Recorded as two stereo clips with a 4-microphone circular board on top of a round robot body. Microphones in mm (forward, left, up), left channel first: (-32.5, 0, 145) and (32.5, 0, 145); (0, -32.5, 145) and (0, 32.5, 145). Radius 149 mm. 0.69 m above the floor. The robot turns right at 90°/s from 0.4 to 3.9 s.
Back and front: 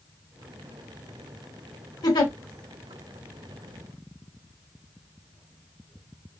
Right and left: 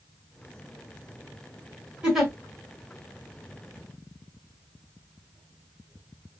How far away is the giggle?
About 1.3 m.